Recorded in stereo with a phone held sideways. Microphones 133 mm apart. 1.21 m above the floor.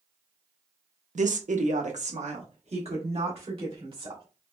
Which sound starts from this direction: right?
A woman speaking, at 1.1 s.